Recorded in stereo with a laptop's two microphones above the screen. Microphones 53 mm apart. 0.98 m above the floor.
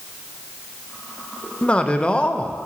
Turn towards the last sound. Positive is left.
turn(degrees=20)  # may be behind; listen again after turning